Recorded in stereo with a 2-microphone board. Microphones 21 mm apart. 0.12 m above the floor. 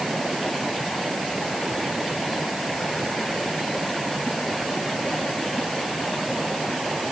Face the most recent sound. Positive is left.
No sound to turn to.